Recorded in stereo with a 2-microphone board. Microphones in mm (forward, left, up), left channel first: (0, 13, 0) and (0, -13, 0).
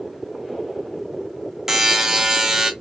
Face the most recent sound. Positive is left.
turn(degrees=-15)  # may be behind; listen again after turning